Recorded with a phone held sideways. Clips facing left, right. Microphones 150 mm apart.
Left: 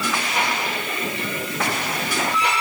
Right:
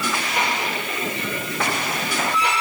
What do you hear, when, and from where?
Only background noise.